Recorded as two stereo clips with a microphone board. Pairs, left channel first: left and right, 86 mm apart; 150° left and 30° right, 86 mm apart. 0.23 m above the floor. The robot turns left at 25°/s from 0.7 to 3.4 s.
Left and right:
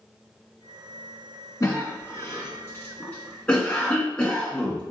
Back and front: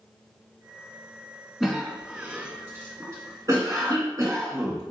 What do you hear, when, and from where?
1.6 s a cough: 60° left, 1.9 m; by 4.8 s 15° left, 1.9 m